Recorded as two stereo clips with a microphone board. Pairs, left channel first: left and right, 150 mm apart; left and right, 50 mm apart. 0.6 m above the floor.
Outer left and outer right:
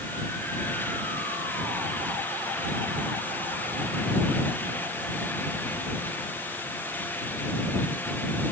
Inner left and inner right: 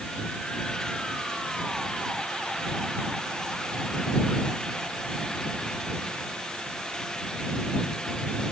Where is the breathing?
No breathing in this recording.